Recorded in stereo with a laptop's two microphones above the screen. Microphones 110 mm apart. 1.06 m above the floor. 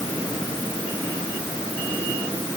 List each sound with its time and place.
Only background noise.